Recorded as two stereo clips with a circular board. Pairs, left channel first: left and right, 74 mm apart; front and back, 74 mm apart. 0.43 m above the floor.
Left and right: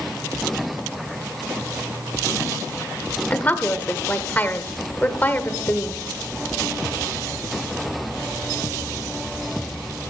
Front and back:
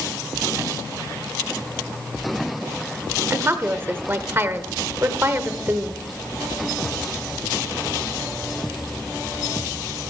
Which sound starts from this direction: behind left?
A woman speaking, at 3.3 s.